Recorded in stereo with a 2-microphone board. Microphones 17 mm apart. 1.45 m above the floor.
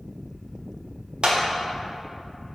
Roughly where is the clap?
Right.